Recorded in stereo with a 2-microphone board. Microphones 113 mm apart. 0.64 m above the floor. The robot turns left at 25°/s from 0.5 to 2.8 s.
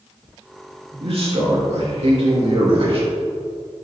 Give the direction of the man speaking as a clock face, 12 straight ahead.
2 o'clock.